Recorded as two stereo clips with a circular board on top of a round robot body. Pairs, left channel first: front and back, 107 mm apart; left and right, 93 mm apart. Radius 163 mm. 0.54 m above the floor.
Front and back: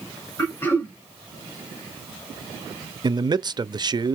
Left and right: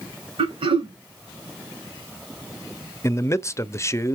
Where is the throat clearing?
70° right, 4.5 m.